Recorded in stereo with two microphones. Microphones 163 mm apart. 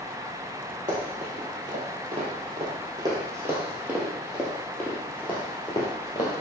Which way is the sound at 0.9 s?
50° right (ahead or behind).